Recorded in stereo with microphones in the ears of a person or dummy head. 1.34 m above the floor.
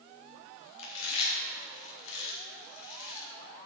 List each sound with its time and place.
0.8 s chewing: 75° left (ahead or behind), 2.5 m